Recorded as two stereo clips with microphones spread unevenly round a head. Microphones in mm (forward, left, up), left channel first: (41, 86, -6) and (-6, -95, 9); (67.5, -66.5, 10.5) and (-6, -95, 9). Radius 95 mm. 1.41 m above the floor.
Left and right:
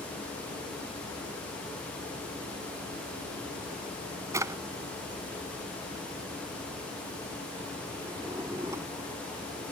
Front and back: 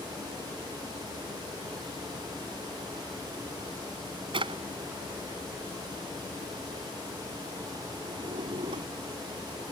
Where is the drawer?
Straight behind.